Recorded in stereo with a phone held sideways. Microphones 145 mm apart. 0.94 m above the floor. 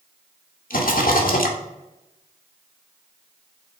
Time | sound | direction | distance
0.7 | a rattle | 75° left (ahead or behind) | 1.2 m